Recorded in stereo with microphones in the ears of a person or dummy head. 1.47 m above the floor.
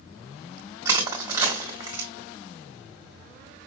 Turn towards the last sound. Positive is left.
turn(degrees=-15)  # may be behind; listen again after turning